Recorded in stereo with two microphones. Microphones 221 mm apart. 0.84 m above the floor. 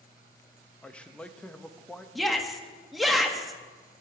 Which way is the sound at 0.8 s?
5° left (ahead or behind).